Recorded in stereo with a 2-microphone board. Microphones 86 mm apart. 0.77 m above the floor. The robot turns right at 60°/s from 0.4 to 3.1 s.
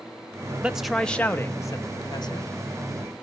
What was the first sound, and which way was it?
A man speaking, 20° right.